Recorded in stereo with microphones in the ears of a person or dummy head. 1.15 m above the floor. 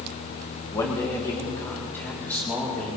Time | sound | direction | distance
0.7 | a man speaking | 25° left (ahead or behind) | 2.5 m